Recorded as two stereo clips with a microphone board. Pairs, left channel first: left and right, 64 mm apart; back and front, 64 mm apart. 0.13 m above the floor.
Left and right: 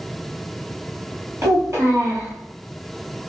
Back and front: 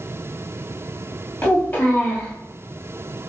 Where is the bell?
No bell in this recording.